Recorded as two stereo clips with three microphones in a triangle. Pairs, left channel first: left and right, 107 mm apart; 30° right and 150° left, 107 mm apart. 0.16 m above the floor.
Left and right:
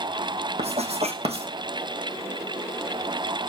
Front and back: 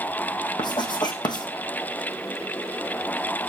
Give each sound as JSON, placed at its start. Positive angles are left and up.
{"t": 0.6, "sound": "writing", "azimuth_deg": -75, "distance_m": 1.9}